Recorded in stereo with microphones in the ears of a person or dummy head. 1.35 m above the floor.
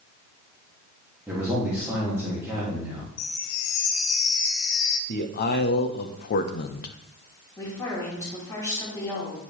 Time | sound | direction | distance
1.3 | a man speaking | 10° right (ahead or behind) | 2 m
3.2 | a chime | 70° left (ahead or behind) | 0.8 m
5.1 | a man speaking | 50° left (ahead or behind) | 0.7 m
7.6 | a woman speaking | 15° left (ahead or behind) | 3 m